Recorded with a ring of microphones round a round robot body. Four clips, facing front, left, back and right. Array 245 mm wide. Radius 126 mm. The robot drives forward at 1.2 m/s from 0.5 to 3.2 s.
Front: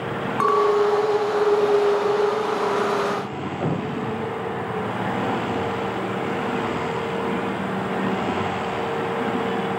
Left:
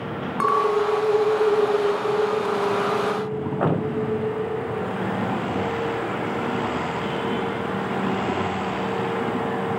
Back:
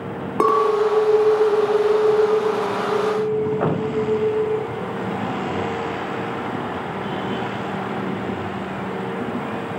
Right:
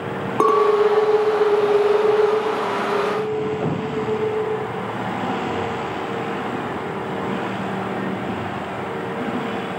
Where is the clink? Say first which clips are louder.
Right 5 dB, back 1 dB; 130° right, 2 m; by 4.6 s 160° right, 5 m.